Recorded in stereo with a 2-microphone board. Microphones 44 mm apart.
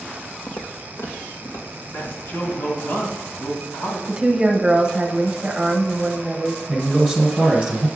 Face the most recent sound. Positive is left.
turn(degrees=5)  # may be behind; listen again after turning